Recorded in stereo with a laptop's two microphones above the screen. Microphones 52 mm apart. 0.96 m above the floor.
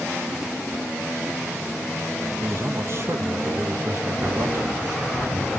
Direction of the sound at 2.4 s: 50° right (ahead or behind).